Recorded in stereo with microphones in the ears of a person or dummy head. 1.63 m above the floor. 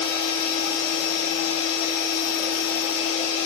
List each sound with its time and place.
0.0 s a machine running: 55° left (ahead or behind), 3.5 m